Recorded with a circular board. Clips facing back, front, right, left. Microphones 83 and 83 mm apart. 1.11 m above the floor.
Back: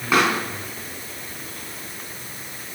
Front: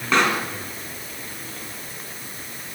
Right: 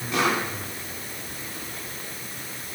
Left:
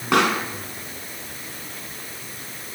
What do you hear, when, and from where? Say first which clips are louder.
0.1 s a pop: back 1 dB, left 5 dB; 100° left, 3.5 m